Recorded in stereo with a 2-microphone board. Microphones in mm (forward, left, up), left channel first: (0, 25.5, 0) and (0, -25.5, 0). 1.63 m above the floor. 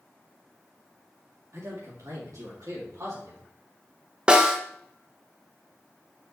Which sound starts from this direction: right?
A man speaking, at 1.5 s.